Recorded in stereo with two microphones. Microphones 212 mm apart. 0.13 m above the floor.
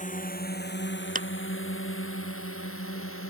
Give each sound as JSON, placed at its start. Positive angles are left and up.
{"t": 0.0, "sound": "a drone", "side_deg": 35}
{"t": 1.1, "sound": "a clap", "side_deg": -40}